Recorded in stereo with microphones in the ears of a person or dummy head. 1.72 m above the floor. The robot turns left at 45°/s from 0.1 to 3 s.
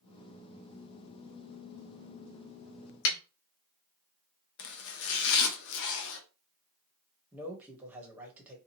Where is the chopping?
65° left (ahead or behind), 0.6 m.